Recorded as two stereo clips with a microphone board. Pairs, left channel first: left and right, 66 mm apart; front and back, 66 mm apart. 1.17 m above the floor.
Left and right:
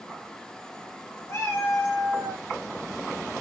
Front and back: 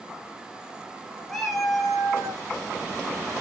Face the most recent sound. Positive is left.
turn(degrees=105)